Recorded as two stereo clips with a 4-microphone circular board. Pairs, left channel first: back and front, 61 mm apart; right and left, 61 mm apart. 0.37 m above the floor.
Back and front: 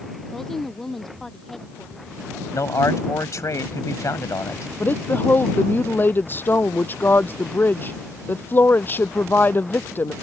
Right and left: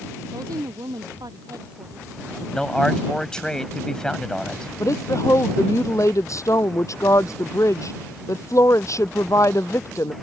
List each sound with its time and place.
0.3 s a woman speaking: 95° left
2.5 s a man speaking: 165° right
4.8 s a woman speaking: 125° right